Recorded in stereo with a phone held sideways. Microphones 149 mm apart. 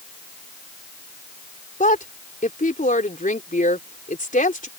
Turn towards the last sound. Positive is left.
turn(degrees=70)  # may be behind; listen again after turning